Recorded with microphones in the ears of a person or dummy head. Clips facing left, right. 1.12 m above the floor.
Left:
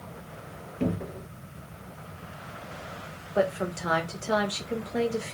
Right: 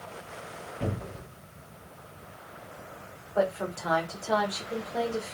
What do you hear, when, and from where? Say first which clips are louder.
0.8 s a cupboard door: left 6 dB; 65° left (ahead or behind), 1.7 m
3.4 s a woman speaking: left 1 dB; 20° left (ahead or behind), 1.5 m